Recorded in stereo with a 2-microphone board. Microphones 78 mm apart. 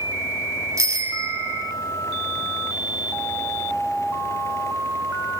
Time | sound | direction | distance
0.8 | a bicycle bell | 40° right (ahead or behind) | 3 m